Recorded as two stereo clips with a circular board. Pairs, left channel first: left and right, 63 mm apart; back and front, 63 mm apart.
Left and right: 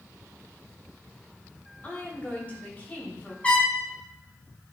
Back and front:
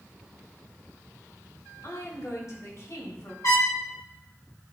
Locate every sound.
1.8 s a woman speaking: 150° left, 3 m
3.4 s a trumpet: 155° left, 2.5 m